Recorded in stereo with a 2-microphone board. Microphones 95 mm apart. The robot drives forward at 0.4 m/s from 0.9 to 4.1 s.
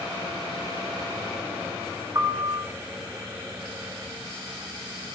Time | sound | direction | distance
2.1 | a piano | 35° right (ahead or behind) | 0.6 m